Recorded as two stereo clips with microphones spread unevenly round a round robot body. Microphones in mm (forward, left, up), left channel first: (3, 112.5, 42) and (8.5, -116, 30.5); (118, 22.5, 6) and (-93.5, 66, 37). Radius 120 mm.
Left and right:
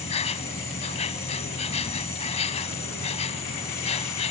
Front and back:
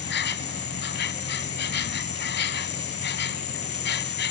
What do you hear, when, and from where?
0.0 s an insect: 30° left